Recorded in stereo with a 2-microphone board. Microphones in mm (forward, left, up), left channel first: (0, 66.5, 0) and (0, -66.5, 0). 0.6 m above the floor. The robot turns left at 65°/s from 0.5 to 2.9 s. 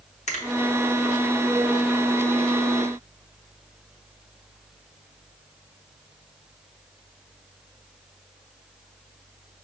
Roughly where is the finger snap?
Left.